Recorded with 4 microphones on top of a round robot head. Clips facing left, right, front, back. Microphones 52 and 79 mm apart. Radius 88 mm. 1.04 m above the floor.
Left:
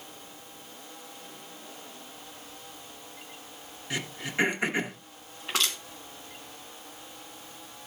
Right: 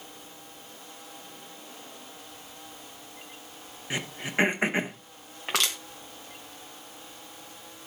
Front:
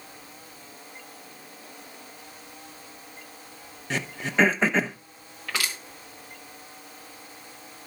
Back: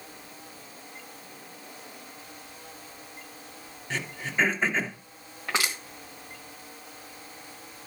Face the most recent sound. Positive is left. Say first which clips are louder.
# right 1 dB, back 2 dB
turn(degrees=-110)